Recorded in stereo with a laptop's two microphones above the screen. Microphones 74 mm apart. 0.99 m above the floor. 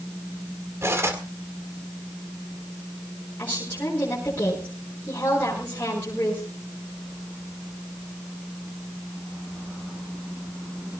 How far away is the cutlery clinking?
About 2.0 m.